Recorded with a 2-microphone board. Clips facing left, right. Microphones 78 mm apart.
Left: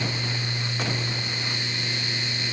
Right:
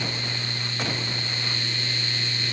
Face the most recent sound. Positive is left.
No sound to turn to.